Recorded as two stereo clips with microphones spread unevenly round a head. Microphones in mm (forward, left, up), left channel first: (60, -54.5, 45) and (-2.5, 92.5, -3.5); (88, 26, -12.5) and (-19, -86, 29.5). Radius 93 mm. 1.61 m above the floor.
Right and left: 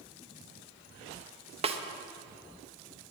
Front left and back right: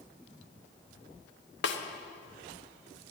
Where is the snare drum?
60° left, 1.0 m.